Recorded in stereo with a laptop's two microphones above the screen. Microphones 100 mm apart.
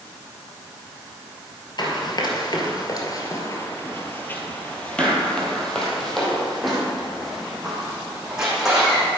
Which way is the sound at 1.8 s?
50° left (ahead or behind).